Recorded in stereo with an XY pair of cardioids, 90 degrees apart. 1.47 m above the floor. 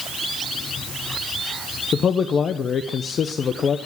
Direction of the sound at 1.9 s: 60° left.